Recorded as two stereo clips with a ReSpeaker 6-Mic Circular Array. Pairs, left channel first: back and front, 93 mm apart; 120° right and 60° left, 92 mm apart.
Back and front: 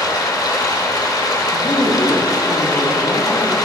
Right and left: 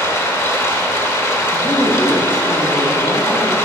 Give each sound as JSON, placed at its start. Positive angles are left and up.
{"t": 0.0, "sound": "running water", "azimuth_deg": -165, "distance_m": 0.8}
{"t": 1.5, "sound": "a woman speaking", "azimuth_deg": -160, "distance_m": 1.9}